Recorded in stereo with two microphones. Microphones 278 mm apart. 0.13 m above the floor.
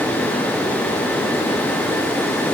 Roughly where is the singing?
No singing in this recording.